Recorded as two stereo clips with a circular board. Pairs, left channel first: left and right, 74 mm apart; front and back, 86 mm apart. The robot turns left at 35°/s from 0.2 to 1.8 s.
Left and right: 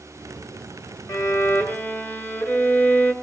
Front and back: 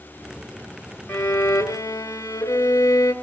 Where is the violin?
60° left, 2 m; by 3.1 s 35° left, 2 m.